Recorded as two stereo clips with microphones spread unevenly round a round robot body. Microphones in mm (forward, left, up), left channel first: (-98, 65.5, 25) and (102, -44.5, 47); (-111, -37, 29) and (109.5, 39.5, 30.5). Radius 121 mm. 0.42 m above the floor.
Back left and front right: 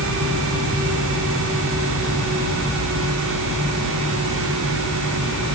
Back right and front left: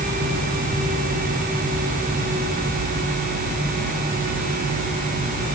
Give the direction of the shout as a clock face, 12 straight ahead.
No shout in this recording.